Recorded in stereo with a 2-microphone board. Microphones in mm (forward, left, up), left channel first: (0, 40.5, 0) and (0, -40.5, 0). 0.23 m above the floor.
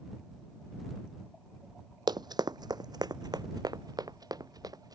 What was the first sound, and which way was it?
Running footsteps, 65° right (ahead or behind).